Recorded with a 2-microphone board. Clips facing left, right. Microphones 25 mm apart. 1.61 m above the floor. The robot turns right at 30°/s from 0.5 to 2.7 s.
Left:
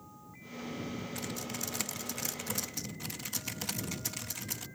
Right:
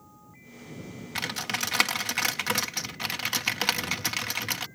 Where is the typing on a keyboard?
115° right; by 4.7 s 65° right.